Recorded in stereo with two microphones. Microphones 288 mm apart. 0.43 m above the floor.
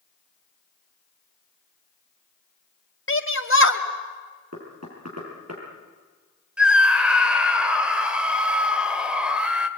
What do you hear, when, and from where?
3.1 s a shout: 45° left (ahead or behind), 2.5 m
4.5 s knocking: 60° right (ahead or behind), 7 m
6.6 s a scream: 5° right (ahead or behind), 1.9 m